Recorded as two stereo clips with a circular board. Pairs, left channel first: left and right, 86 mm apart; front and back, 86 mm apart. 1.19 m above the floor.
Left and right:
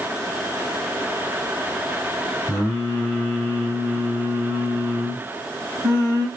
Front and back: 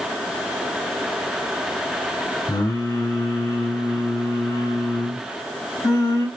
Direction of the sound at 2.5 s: 15° left.